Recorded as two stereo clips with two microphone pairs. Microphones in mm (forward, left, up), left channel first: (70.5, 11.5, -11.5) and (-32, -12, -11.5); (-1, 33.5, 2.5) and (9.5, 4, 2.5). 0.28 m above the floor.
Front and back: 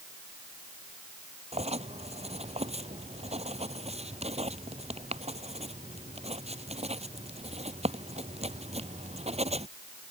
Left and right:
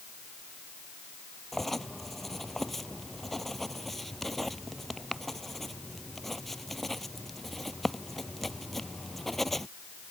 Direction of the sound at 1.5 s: 170° right.